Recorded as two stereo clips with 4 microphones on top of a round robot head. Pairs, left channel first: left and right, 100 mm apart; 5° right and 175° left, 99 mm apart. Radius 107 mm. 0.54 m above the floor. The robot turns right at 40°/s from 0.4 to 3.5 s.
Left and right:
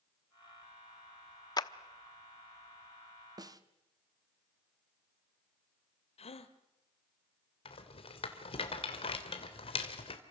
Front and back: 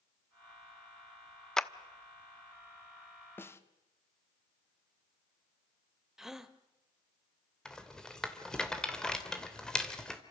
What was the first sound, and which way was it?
A clap, 75° left.